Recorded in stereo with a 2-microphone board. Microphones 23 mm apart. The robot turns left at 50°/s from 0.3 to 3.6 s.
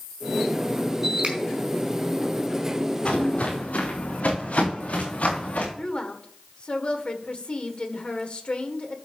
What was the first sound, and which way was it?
A finger snap, 45° right (ahead or behind).